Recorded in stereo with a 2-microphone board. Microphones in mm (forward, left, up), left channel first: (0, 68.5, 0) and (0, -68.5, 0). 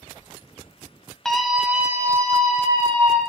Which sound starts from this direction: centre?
A scream, at 1.2 s.